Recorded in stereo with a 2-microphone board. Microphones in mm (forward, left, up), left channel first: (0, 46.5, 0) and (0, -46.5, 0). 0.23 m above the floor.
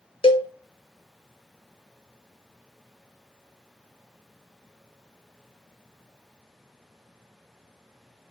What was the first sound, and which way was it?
A cowbell, 80° left.